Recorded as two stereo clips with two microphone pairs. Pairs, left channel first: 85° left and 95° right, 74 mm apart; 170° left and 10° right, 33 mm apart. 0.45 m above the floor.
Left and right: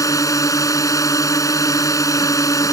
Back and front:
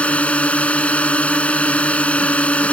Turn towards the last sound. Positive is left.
turn(degrees=125)